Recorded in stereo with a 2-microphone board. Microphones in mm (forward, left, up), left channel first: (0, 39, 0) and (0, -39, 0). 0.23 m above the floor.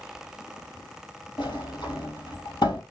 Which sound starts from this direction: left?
A sliding door, at 1.4 s.